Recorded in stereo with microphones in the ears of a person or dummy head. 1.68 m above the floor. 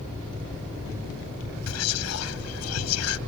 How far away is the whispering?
About 1.1 m.